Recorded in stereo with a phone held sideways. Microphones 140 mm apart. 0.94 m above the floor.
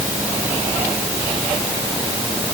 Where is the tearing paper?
I don't hear tearing paper.